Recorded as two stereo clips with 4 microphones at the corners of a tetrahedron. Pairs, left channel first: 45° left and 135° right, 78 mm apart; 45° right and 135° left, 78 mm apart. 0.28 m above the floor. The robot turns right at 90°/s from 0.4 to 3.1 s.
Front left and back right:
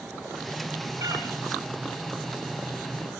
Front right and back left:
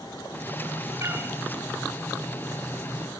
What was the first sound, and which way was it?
A cat meowing, 160° right.